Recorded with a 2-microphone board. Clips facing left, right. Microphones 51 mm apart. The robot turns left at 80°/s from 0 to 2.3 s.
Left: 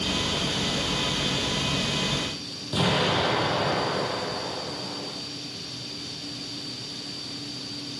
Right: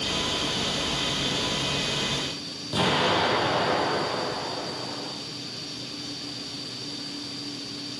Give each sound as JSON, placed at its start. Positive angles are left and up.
{"t": 2.7, "sound": "an explosion", "side_deg": -5, "distance_m": 3.5}